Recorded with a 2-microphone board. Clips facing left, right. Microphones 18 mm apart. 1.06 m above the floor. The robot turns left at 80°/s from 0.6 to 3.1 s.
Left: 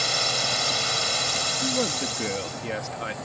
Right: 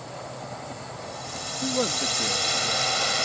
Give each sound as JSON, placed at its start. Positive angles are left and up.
{"t": 0.0, "sound": "a drone", "azimuth_deg": 105}
{"t": 1.6, "sound": "a man speaking", "azimuth_deg": -150}